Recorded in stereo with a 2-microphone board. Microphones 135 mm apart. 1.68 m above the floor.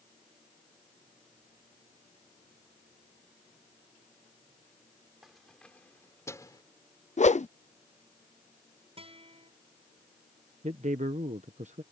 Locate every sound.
5.2 s keys jangling: centre (ahead or behind); by 6.6 s 30° left (ahead or behind)
7.2 s a whoosh: 60° left (ahead or behind)
9.0 s a guitar: 45° right (ahead or behind)
10.6 s a man speaking: 60° right (ahead or behind)